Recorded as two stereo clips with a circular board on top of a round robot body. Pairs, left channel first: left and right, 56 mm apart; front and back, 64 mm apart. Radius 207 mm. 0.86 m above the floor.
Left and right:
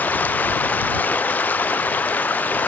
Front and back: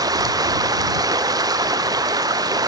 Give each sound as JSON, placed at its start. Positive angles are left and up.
{"t": 0.0, "sound": "running water", "azimuth_deg": 155}